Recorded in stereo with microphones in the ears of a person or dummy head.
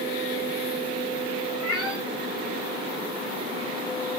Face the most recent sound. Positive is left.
turn(degrees=-5)  # may be behind; listen again after turning